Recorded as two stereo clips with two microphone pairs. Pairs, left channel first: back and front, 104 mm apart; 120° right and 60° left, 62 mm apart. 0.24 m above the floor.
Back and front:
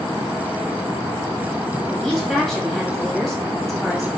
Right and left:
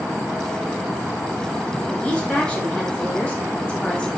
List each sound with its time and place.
1.9 s a woman speaking: 95° right, 1.3 m